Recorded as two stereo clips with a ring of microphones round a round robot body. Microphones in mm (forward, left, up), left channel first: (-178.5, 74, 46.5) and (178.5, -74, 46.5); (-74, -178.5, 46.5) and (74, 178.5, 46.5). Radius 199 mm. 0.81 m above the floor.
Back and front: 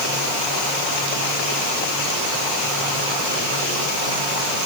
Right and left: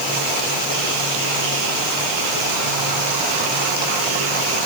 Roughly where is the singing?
I don't hear singing.